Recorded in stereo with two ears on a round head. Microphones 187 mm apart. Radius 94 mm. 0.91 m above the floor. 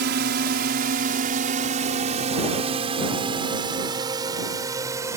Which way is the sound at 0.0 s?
50° right (ahead or behind).